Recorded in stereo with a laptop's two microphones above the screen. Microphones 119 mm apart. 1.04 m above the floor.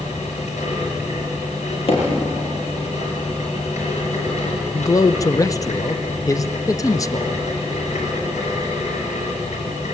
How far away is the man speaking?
About 0.6 m.